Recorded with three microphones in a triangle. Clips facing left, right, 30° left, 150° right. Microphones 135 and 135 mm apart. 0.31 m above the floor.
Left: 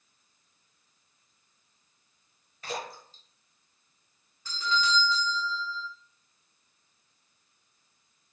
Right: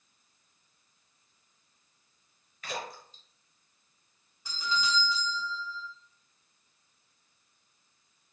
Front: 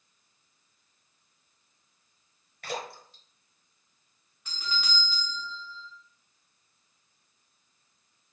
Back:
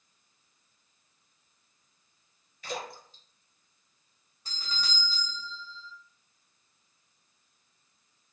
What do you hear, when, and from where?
2.6 s a splash: 40° left, 0.9 m
4.5 s a doorbell: 160° right, 1.7 m